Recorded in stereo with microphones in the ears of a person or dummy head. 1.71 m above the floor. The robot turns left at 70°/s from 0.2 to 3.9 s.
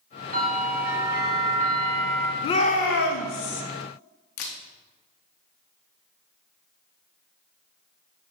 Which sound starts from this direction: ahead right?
A bell, at 0.3 s.